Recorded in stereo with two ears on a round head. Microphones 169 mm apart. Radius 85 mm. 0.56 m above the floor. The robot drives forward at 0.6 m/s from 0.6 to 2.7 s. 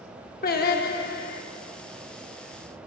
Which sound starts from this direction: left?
Singing, at 0.4 s.